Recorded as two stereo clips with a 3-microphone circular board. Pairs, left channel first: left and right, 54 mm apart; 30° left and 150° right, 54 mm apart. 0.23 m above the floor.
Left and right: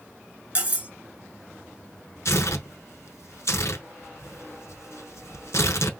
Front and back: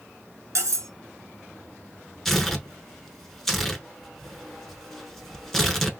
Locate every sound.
0.6 s cutlery clinking: 150° right, 1.5 m
2.2 s tearing paper: 115° left, 0.7 m